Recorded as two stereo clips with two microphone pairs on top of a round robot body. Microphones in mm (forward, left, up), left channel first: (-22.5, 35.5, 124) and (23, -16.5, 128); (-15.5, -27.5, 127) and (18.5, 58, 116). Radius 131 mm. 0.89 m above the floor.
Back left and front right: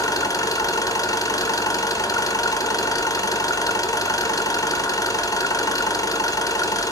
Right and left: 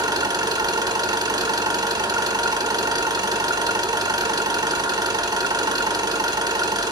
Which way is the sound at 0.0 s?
100° left.